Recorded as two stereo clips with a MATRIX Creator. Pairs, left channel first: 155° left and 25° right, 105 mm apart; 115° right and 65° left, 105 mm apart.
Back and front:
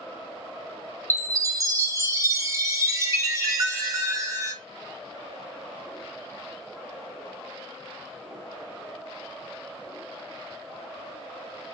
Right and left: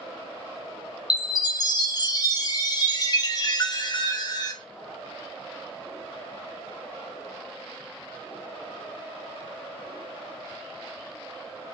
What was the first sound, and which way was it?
A chime, 75° right.